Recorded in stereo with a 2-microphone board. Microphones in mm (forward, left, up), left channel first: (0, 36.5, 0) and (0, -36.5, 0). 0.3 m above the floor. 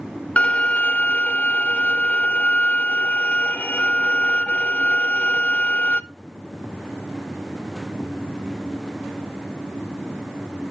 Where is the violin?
20° left (ahead or behind), 0.6 m.